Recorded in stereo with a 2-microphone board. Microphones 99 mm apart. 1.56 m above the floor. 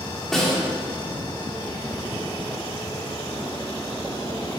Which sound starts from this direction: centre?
A snare drum, at 0.3 s.